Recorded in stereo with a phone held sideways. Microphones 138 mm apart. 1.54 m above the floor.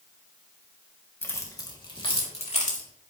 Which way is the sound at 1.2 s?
15° left (ahead or behind).